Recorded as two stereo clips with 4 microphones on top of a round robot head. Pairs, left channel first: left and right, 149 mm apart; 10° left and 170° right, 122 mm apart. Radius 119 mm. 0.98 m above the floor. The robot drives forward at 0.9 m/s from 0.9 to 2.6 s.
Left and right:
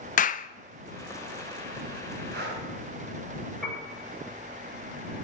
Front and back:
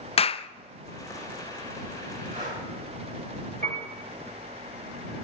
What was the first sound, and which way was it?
A clap, 55° left.